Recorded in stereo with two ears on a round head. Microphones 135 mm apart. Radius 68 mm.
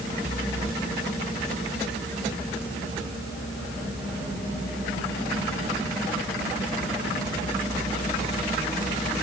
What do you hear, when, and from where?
Only background noise.